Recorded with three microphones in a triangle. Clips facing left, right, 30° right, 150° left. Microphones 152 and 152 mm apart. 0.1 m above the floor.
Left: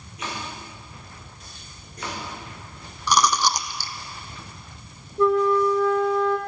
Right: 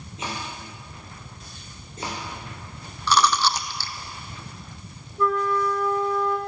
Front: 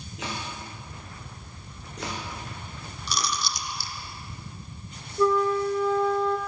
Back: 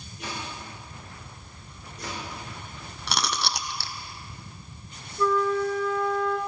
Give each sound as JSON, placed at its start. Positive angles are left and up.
{"t": 0.2, "sound": "chopping", "azimuth_deg": -25, "distance_m": 5.0}
{"t": 3.1, "sound": "chewing", "azimuth_deg": 165, "distance_m": 0.8}
{"t": 5.2, "sound": "a flute", "azimuth_deg": 30, "distance_m": 1.4}